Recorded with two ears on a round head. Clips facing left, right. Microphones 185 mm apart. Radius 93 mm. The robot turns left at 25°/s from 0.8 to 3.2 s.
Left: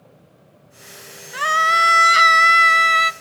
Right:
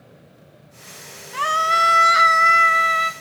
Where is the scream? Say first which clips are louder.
Even; 165° left, 0.5 m; by 3.1 s 120° left, 0.5 m.